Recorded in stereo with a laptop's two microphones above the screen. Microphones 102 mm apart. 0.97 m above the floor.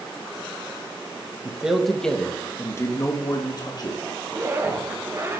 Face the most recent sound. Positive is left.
turn(degrees=-30)  # may be behind; listen again after turning